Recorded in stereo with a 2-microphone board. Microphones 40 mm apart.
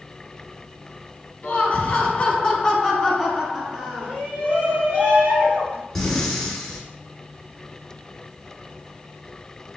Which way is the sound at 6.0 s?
5° left (ahead or behind).